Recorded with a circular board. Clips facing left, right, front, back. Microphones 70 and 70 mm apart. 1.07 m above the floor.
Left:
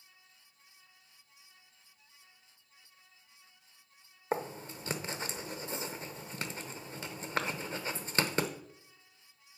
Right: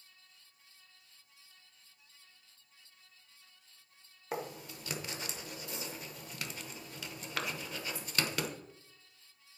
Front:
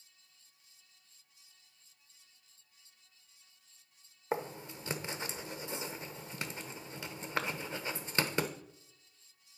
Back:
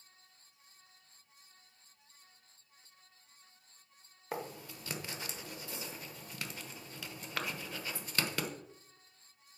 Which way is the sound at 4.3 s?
55° left.